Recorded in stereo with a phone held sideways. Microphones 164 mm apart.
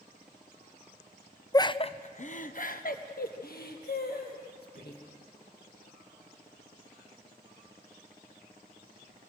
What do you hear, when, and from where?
1.5 s laughter: 20° left (ahead or behind), 0.5 m; by 5.0 s 70° left (ahead or behind), 2.5 m